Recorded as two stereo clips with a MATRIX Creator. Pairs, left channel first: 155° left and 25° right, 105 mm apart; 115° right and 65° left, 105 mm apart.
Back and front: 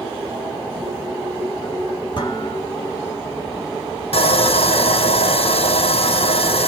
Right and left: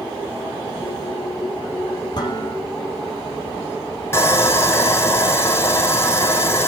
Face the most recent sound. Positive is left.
turn(degrees=180)